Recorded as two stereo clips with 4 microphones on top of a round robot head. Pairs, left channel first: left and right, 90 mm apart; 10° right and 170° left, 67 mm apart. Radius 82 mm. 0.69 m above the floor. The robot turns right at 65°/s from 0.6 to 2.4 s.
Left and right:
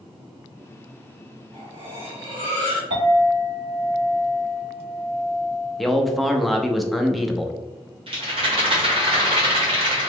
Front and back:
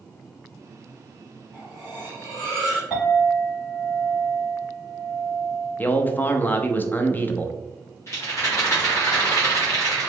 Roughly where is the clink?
Right.